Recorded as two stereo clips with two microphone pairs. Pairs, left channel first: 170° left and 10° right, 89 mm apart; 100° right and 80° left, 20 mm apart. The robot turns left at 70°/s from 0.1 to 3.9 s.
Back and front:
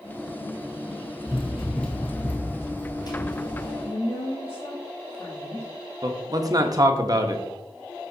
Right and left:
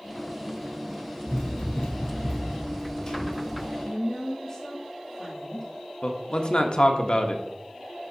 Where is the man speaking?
55° right, 1.0 m.